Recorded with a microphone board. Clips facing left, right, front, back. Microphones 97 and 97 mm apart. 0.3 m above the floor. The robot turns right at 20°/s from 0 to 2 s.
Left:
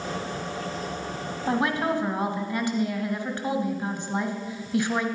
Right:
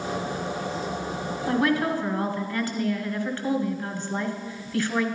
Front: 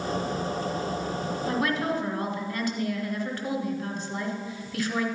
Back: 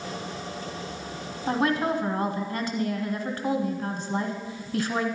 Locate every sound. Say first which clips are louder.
1.5 s a woman speaking: right 1 dB, back 4 dB; 130° left, 1.3 m; by 5.0 s 140° left, 1.3 m